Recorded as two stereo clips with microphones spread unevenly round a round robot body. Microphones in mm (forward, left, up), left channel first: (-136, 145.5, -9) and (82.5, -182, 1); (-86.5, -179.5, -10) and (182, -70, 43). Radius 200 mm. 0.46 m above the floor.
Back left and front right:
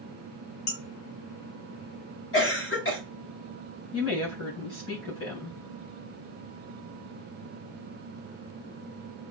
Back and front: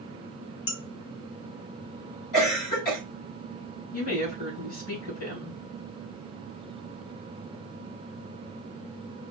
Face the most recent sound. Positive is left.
turn(degrees=175)